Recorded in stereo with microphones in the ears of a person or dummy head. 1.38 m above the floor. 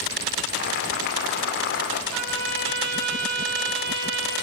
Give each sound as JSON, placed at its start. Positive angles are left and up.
{"t": 0.5, "sound": "boiling", "side_deg": 50, "distance_m": 3.5}
{"t": 2.1, "sound": "a trumpet", "side_deg": -85, "distance_m": 9.5}